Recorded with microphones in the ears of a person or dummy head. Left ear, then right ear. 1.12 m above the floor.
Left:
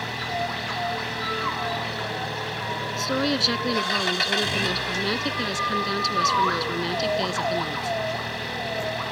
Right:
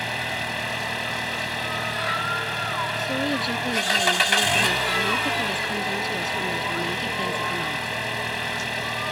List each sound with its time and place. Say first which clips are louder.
0.0 s an engine running: right 1 dB; 30° right (ahead or behind)
3.0 s a woman speaking: left 1 dB; 35° left (ahead or behind)